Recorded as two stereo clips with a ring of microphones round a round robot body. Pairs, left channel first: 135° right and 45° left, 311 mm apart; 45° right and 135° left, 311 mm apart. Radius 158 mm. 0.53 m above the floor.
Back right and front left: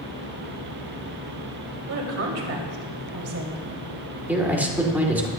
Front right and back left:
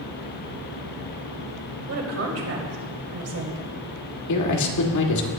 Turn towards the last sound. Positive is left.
turn(degrees=-40)